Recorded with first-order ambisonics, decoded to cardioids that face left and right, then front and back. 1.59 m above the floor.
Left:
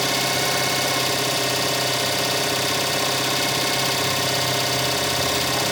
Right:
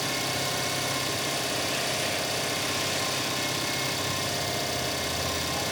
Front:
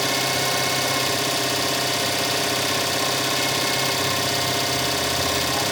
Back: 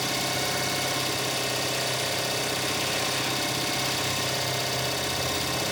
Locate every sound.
0.0 s an engine running: 55° left, 1.3 m